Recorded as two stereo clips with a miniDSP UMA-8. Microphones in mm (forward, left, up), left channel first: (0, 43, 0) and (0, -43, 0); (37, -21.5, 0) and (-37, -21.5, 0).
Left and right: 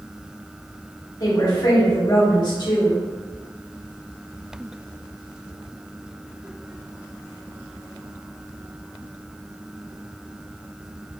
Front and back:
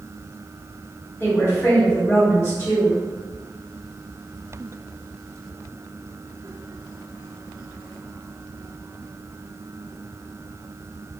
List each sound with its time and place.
1.2 s a woman speaking: 55° left, 1.8 m